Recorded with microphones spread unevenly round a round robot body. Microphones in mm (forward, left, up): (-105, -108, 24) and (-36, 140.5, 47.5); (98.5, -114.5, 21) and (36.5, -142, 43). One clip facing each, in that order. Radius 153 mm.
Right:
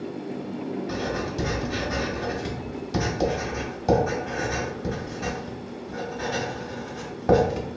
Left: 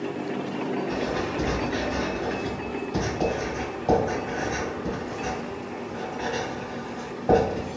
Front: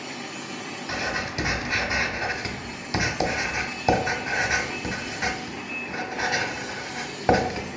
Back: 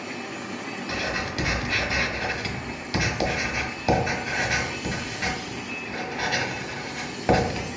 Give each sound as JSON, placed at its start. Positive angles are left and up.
{"t": 0.9, "sound": "writing", "azimuth_deg": -45, "distance_m": 0.7}